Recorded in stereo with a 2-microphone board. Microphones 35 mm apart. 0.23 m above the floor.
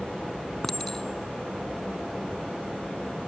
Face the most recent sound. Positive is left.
turn(degrees=15)  # may be behind; listen again after turning